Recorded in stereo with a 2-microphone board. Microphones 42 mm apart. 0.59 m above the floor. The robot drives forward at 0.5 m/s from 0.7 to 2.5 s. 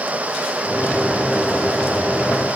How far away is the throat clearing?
I don't hear throat clearing.